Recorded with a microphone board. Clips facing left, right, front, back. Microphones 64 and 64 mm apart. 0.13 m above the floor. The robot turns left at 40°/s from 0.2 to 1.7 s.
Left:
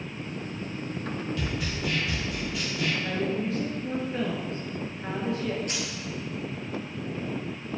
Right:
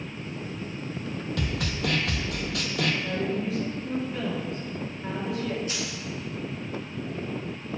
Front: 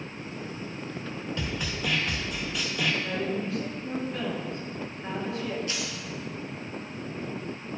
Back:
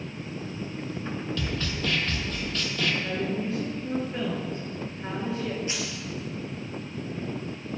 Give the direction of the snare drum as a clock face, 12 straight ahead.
2 o'clock.